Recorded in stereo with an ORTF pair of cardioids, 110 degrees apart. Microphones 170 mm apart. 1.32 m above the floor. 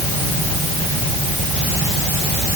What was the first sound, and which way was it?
Only background noise.